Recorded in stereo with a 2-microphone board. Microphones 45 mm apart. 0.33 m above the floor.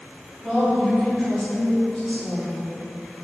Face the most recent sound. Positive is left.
turn(degrees=5)  # may be behind; listen again after turning